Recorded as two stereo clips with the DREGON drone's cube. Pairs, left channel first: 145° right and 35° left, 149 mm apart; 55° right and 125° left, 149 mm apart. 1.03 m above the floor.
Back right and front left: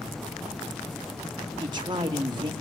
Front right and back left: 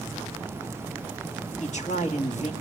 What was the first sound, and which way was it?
A man speaking, 20° right.